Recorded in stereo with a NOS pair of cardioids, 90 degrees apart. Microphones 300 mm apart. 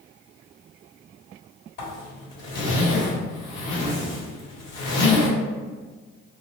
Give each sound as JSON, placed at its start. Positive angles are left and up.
{"t": 1.8, "sound": "a zipper", "azimuth_deg": 60, "distance_m": 1.9}